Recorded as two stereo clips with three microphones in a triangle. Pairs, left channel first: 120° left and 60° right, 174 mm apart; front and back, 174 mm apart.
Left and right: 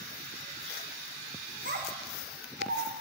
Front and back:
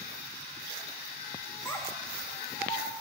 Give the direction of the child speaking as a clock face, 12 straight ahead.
3 o'clock.